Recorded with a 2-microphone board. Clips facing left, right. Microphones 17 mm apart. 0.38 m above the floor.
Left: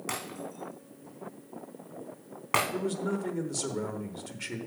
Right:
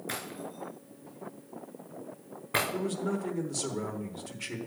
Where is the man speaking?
15° left (ahead or behind), 1.0 m.